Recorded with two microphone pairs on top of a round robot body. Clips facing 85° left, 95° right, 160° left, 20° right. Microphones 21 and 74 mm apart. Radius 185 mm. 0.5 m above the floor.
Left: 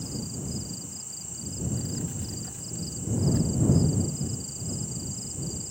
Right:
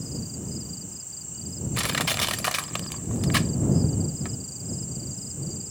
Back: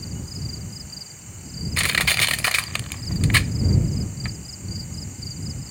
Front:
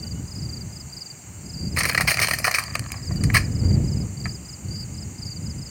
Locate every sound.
1.8 s crushing: 90° right